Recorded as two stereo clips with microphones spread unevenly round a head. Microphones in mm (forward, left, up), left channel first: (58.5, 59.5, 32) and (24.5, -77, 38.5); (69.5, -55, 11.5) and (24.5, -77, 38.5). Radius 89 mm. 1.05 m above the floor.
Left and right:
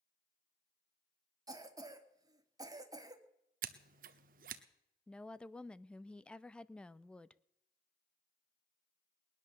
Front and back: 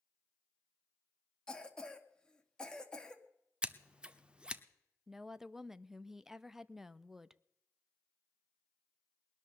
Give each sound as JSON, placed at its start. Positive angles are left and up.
{"t": 1.5, "sound": "a cough", "azimuth_deg": -40, "distance_m": 2.5}
{"t": 3.6, "sound": "scissors", "azimuth_deg": -115, "distance_m": 0.9}
{"t": 5.1, "sound": "a woman speaking", "azimuth_deg": 10, "distance_m": 0.6}